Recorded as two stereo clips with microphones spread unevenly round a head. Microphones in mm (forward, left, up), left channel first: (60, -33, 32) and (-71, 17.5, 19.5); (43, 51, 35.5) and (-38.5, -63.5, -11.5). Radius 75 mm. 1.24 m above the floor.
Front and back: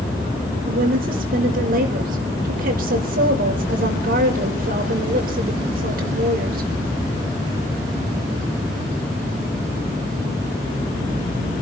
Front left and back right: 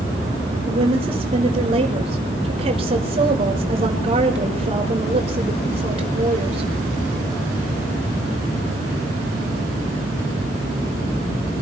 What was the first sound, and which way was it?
A woman speaking, straight behind.